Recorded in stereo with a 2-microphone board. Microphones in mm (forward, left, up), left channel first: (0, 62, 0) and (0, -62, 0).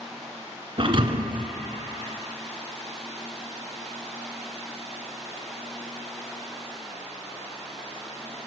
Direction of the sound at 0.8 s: 45° right (ahead or behind).